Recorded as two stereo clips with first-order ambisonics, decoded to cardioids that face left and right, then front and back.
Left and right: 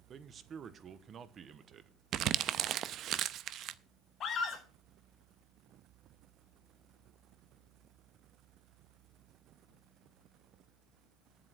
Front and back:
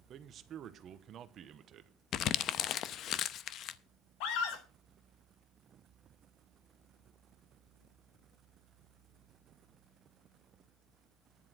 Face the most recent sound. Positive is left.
turn(degrees=30)